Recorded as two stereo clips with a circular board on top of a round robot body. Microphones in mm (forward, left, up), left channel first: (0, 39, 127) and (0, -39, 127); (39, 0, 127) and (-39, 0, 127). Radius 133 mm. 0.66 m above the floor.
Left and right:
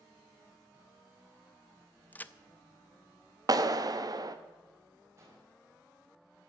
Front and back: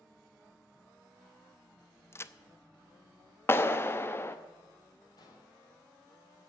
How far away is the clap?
About 0.9 m.